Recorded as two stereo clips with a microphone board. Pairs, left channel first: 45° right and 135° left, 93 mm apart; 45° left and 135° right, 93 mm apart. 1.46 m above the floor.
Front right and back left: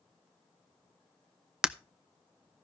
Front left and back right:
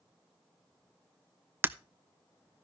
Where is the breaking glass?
155° right, 0.5 m.